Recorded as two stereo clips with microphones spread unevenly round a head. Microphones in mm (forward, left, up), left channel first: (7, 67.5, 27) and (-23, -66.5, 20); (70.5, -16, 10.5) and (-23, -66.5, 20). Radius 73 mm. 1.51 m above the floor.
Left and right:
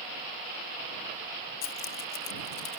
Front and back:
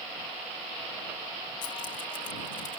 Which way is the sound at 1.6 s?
90° left.